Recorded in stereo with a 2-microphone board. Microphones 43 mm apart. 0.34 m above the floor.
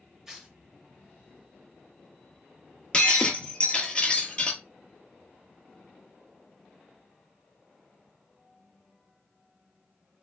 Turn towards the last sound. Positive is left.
turn(degrees=20)  # may be behind; listen again after turning